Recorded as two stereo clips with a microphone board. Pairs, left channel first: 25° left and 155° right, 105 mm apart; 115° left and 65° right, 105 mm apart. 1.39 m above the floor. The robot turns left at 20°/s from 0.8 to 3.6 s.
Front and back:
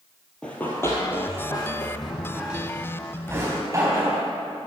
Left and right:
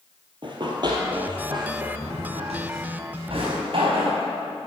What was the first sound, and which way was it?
Running footsteps, 55° right.